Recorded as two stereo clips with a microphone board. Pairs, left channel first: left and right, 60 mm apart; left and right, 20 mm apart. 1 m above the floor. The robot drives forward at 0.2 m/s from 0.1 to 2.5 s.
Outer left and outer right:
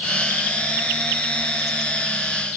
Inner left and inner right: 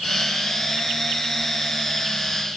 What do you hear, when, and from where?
Only background noise.